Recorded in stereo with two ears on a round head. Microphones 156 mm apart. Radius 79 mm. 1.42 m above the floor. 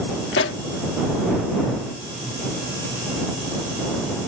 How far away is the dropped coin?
I don't hear a dropped coin.